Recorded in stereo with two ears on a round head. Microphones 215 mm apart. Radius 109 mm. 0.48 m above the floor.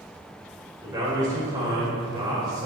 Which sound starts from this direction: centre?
A man speaking, at 0.8 s.